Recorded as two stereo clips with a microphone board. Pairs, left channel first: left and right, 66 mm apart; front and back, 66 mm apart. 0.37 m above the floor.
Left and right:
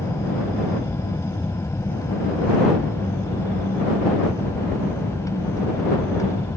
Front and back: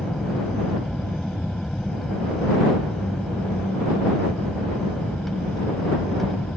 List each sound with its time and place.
0.0 s an aircraft: 85° left